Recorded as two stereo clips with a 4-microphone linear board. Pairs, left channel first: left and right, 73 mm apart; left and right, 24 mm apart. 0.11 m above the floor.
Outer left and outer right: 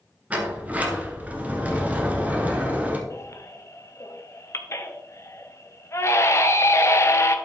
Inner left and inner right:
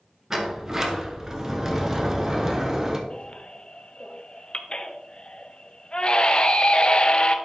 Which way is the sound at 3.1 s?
40° left (ahead or behind).